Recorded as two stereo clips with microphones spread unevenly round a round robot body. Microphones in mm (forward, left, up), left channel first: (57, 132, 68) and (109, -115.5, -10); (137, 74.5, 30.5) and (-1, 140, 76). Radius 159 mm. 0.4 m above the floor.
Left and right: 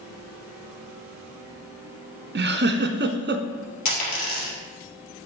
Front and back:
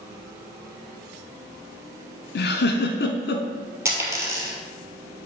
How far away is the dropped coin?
About 3 m.